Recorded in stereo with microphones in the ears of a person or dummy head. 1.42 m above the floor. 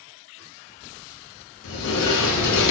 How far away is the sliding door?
About 0.5 m.